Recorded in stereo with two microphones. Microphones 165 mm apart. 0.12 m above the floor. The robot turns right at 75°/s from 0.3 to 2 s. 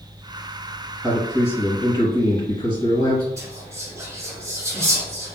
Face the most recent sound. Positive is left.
turn(degrees=-20)  # may be behind; listen again after turning